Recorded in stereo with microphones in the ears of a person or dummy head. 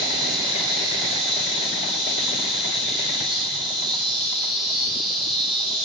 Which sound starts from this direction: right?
An insect, at 0.0 s.